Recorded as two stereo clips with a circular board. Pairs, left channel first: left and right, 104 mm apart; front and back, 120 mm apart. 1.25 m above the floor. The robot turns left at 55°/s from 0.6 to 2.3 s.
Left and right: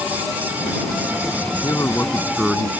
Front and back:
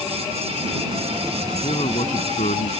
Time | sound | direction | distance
1.6 | a man speaking | 35° left | ?